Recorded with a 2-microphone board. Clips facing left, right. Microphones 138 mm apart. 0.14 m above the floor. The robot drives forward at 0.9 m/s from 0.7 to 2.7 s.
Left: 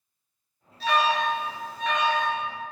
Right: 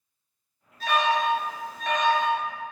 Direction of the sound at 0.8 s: 50° right (ahead or behind).